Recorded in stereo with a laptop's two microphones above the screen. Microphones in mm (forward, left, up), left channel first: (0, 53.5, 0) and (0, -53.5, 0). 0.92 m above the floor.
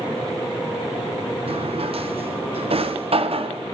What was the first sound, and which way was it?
A drawer, 65° right (ahead or behind).